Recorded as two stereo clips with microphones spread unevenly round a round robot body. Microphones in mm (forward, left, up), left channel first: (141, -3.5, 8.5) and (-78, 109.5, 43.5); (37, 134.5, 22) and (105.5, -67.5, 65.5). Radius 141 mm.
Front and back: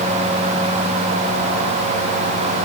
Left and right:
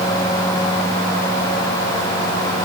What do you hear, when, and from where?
Only background noise.